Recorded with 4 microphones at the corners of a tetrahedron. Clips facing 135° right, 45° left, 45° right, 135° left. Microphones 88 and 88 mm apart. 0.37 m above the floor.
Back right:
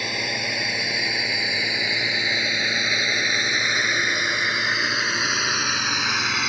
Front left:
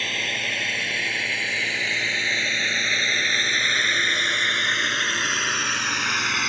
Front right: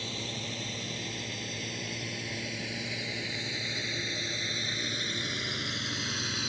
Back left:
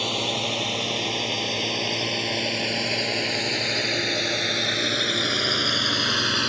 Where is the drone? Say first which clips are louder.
Back right 1 dB, back left 12 dB; 150° left; by 6.5 s 140° left.